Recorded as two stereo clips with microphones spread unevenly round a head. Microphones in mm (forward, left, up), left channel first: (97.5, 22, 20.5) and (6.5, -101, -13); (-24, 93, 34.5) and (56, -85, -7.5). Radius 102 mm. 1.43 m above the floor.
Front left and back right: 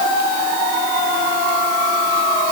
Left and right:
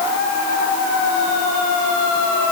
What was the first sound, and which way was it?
Only background noise.